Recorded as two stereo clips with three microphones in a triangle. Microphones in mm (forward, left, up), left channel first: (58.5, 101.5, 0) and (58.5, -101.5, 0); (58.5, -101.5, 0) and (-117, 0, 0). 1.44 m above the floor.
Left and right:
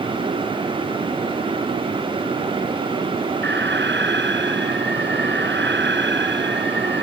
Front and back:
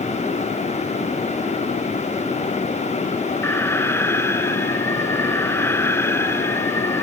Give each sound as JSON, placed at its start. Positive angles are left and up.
{"t": 3.4, "sound": "an alarm", "azimuth_deg": -110}